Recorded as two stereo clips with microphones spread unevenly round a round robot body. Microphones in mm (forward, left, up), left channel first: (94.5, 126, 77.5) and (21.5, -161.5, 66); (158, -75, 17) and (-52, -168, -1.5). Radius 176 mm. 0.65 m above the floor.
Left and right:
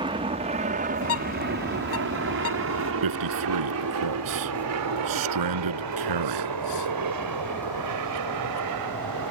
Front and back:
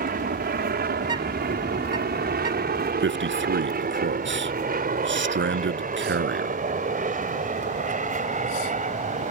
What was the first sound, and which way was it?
An aircraft, 170° right.